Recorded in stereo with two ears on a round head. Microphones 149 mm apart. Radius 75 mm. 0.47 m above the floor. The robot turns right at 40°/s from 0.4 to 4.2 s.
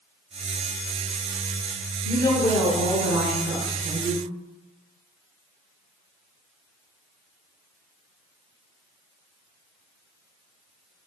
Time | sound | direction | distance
2.0 | a woman speaking | 25° left (ahead or behind) | 1.3 m